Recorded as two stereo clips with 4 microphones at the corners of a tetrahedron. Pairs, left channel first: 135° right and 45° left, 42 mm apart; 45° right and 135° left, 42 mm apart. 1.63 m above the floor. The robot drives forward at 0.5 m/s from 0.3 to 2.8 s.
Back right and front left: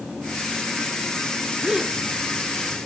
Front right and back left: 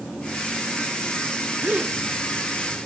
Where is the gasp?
110° left, 1.0 m; by 2.0 s 125° left, 1.1 m.